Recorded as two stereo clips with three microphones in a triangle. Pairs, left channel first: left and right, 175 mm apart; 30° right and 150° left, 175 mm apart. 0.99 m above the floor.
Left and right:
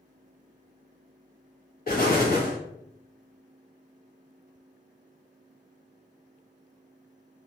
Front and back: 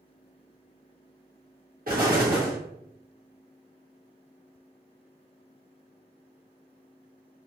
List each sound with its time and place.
1.9 s an explosion: 120° left, 0.9 m